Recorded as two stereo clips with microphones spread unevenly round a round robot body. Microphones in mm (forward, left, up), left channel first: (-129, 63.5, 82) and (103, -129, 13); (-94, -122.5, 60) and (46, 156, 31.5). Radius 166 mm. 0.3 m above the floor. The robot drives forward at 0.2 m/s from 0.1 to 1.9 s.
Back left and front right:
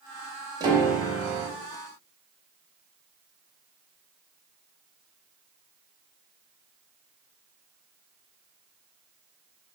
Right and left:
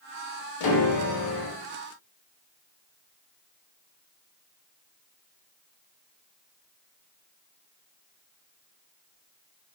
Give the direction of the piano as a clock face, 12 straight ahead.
4 o'clock.